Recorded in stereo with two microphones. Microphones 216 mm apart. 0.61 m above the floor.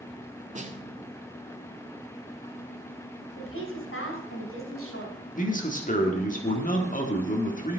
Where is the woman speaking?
65° left (ahead or behind), 4 m.